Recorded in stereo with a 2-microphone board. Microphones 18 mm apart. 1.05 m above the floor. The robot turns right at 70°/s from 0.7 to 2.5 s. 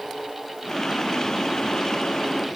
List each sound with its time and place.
Only background noise.